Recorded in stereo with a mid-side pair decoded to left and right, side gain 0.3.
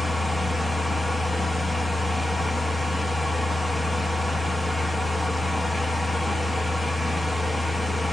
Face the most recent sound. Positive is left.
turn(degrees=30)